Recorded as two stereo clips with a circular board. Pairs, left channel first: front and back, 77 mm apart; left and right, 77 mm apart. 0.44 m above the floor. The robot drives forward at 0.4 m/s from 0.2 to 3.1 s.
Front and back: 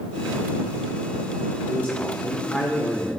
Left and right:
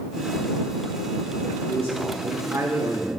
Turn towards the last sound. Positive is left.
turn(degrees=-100)